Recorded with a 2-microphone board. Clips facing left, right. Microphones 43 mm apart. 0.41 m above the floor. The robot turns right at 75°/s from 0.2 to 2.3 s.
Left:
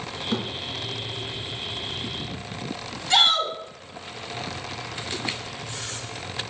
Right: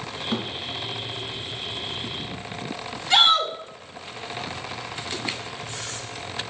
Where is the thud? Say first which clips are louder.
Even; 10° right (ahead or behind), 2.0 m; by 0.5 s 20° right (ahead or behind), 2.0 m.